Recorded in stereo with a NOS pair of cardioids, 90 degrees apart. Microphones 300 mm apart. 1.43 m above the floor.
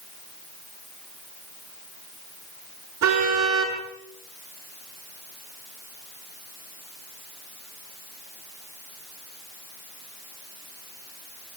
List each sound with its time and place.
3.0 s a car horn: 65° right, 7 m